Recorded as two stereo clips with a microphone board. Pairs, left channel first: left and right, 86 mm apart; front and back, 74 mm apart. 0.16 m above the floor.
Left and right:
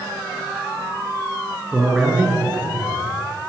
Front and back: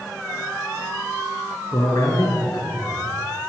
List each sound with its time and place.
1.7 s a man speaking: 5° right, 2.0 m; by 3.5 s 15° right, 3 m